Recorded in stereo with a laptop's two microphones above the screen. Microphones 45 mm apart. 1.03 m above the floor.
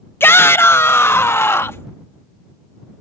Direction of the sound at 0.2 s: 60° left (ahead or behind).